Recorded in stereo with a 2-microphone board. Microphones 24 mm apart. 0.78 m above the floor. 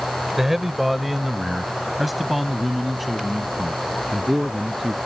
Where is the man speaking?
15° right (ahead or behind); by 5.0 s centre (ahead or behind).